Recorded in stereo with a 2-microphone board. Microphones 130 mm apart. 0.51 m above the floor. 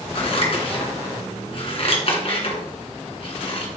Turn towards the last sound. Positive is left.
turn(degrees=50)  # may be behind; listen again after turning